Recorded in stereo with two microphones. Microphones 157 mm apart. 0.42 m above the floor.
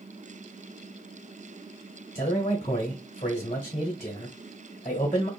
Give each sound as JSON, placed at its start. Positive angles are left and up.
{"t": 2.1, "sound": "a man speaking", "side_deg": 45, "distance_m": 1.2}